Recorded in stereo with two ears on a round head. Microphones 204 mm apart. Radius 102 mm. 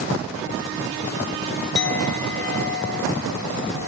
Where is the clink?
50° left (ahead or behind), 1.3 m.